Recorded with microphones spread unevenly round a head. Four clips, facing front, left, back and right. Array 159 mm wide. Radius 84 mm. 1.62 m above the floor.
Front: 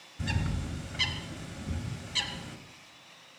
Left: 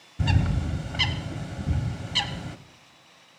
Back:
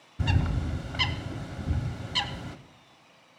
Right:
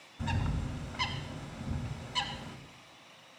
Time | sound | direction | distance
0.2 | a bird | 120° left | 0.7 m